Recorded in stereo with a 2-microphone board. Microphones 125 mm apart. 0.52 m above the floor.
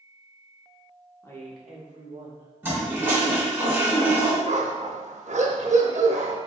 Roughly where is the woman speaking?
Left.